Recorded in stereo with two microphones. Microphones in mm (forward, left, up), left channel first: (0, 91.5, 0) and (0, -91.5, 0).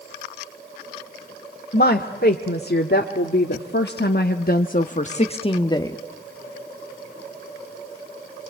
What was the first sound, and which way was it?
A woman speaking, 60° left (ahead or behind).